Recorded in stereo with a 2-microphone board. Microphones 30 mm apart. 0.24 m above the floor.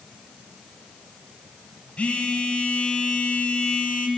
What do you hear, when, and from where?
2.0 s a phone buzzing: 50° left (ahead or behind), 0.5 m